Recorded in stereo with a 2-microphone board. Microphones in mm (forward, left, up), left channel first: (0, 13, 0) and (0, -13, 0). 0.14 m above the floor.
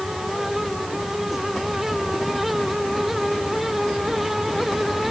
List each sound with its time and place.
Only background noise.